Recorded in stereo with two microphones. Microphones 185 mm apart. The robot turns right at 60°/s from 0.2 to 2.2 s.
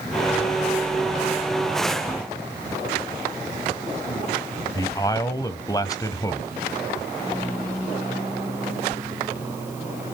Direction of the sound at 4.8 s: 20° left (ahead or behind).